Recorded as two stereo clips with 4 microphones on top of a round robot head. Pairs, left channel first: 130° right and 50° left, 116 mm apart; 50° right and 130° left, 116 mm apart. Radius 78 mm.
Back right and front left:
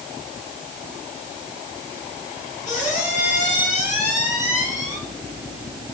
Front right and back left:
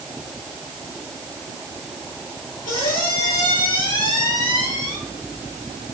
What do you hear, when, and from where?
2.6 s a squeak: 100° right, 7 m